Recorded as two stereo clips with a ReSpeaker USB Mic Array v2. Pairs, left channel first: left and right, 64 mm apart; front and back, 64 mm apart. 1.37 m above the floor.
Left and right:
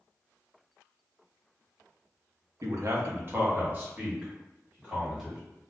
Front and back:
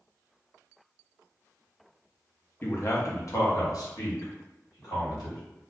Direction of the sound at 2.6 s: 55° right.